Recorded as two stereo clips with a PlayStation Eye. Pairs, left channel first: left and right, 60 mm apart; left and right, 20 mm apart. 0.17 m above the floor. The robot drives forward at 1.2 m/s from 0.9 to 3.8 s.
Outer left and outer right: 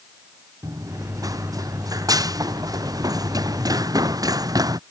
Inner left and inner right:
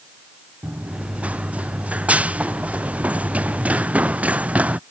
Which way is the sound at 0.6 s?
75° right (ahead or behind).